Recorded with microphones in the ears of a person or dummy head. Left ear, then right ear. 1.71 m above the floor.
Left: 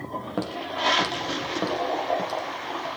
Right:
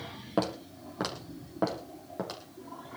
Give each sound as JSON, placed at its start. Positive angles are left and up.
{"t": 0.4, "sound": "footsteps", "side_deg": -10, "distance_m": 3.0}